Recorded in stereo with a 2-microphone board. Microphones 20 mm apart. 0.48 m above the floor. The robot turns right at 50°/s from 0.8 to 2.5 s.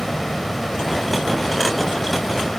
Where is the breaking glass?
No breaking glass in this recording.